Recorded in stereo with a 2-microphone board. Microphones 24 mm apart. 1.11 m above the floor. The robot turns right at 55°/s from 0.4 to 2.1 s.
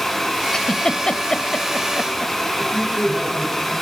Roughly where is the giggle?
Left.